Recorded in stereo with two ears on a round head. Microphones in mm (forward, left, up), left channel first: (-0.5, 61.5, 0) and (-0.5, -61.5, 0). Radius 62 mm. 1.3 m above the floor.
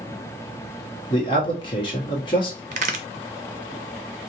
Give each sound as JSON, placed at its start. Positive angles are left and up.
{"t": 1.1, "sound": "a man speaking", "side_deg": 35, "distance_m": 1.4}
{"t": 2.7, "sound": "a crack", "side_deg": -55, "distance_m": 0.7}